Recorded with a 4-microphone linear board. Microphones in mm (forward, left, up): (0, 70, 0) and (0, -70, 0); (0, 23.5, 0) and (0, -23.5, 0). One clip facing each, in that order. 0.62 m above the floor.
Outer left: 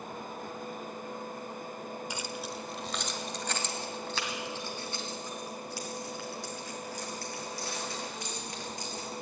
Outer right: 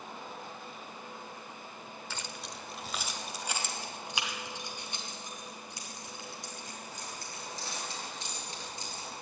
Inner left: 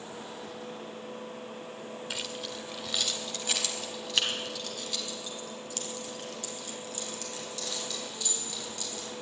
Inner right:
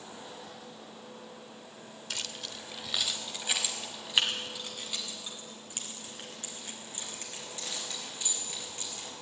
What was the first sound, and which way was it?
Keys jangling, 15° left (ahead or behind).